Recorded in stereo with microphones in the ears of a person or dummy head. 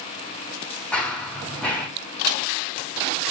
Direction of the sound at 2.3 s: 20° right (ahead or behind).